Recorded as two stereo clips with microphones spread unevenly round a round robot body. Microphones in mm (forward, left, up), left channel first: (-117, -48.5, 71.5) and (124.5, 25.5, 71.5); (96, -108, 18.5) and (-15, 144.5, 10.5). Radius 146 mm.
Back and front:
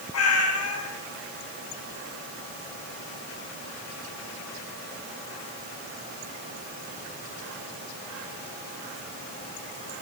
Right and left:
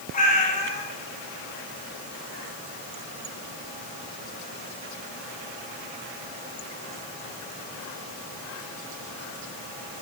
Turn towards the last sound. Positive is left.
turn(degrees=-130)